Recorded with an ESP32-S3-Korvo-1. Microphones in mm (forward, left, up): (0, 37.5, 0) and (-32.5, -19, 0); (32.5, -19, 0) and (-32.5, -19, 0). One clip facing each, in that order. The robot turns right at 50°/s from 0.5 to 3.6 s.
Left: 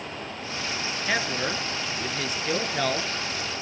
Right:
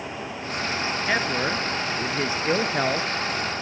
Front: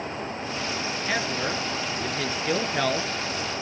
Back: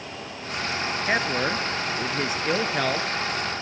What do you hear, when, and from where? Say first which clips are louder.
1.1 s a man speaking: right 2 dB, back 4 dB; 170° left, 1.2 m; by 3.1 s 90° right, 1.2 m